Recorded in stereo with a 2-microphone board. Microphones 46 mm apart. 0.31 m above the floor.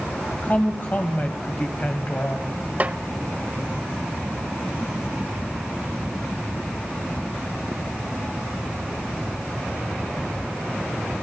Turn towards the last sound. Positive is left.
turn(degrees=-35)  # may be behind; listen again after turning